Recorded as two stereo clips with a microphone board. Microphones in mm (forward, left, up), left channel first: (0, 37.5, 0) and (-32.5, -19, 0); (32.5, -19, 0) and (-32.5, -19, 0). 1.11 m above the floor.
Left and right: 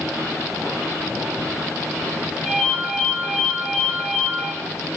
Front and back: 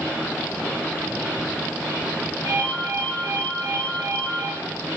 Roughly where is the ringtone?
Behind left.